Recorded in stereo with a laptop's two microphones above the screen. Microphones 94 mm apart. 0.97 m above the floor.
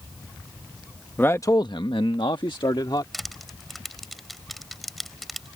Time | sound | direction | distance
1.2 | a man speaking | 20° left (ahead or behind) | ?
3.1 | crushing | centre (ahead or behind) | ?